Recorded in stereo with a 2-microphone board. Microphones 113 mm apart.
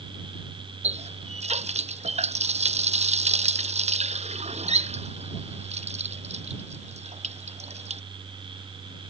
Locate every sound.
0.8 s a running tap: 75° right (ahead or behind)